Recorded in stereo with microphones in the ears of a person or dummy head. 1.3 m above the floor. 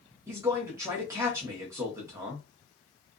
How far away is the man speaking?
About 1.0 m.